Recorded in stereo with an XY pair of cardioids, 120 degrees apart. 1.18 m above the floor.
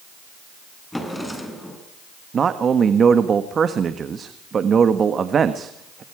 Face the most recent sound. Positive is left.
turn(degrees=-40)